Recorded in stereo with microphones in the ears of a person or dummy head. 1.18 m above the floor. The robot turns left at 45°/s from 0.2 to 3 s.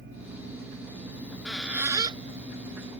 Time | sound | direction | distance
1.1 | a squeak | 15° left (ahead or behind) | ?